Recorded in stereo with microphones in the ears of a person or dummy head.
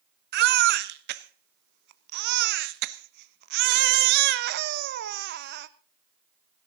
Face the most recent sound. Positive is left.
turn(degrees=-65)  # may be behind; listen again after turning